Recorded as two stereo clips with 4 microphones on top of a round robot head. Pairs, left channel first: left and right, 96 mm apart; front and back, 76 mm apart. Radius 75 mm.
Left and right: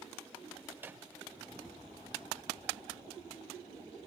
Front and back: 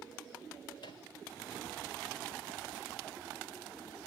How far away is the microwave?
About 1.4 m.